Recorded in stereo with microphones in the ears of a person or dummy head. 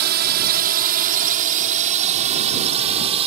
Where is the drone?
55° right (ahead or behind); by 3.3 s 30° right (ahead or behind).